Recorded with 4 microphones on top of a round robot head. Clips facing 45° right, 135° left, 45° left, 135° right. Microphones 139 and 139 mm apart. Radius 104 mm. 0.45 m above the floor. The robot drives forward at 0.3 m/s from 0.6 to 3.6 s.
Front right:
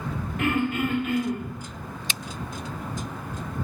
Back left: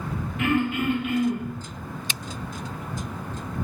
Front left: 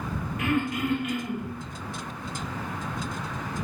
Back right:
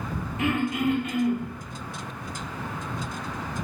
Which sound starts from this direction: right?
Throat clearing, at 0.4 s.